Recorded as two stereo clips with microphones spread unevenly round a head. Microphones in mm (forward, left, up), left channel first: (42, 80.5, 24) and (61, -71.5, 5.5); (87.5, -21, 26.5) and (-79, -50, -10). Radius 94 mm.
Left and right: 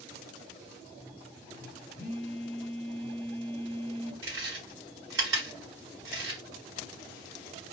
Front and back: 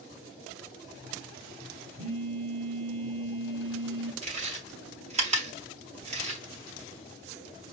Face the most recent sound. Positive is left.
turn(degrees=-120)